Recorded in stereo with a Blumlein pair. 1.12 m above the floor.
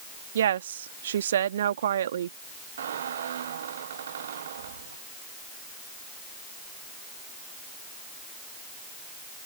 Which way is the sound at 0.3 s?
65° right.